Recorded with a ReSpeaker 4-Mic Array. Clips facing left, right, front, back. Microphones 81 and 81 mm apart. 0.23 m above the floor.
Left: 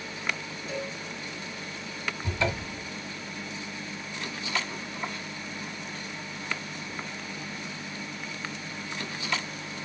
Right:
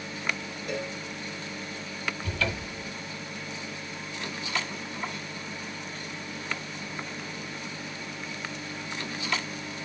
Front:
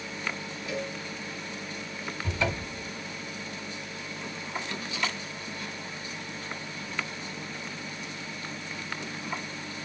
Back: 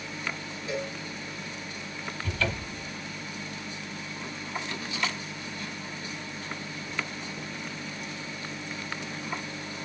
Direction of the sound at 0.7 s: 115° right.